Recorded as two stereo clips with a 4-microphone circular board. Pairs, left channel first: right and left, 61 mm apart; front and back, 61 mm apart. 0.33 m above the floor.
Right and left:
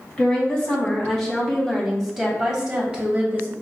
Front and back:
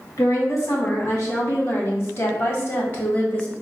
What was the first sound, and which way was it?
A woman speaking, 15° right.